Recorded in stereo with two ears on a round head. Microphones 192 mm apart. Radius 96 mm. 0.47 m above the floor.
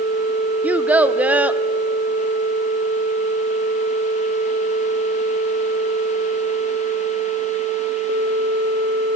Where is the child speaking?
5° right (ahead or behind), 0.6 m.